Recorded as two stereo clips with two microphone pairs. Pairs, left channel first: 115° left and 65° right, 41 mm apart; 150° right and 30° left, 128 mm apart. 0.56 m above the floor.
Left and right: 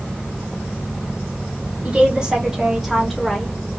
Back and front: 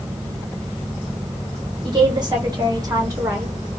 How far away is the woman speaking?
About 1.5 m.